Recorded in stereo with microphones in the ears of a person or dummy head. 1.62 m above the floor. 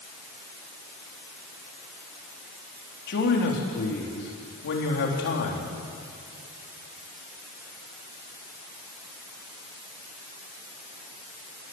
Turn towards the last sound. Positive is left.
turn(degrees=55)  # may be behind; listen again after turning